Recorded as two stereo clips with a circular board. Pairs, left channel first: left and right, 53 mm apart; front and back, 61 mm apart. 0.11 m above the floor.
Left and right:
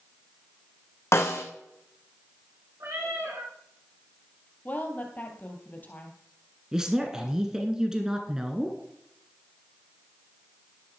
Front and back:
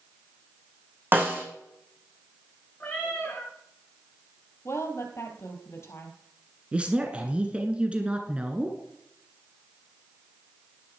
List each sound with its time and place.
1.1 s a snare drum: 120° left, 2.5 m
2.8 s a cat meowing: 70° right, 5 m
4.7 s a woman speaking: 35° left, 2.5 m
6.7 s a man speaking: 145° right, 1.3 m